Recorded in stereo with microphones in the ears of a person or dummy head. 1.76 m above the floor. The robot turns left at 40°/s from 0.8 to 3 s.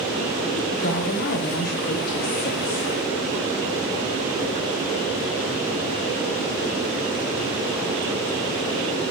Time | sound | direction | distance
0.6 | a woman speaking | 140° left | 1.0 m